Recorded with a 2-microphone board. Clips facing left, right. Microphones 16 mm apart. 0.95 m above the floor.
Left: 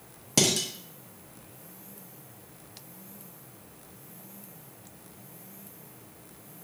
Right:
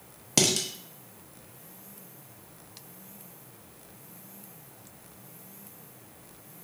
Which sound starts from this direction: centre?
Dishes clattering, at 0.4 s.